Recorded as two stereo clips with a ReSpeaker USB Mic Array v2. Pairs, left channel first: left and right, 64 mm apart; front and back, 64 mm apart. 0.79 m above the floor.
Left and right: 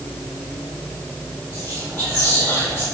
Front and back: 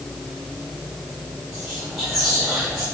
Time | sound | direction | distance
1.5 | whispering | 100° right | 1.6 m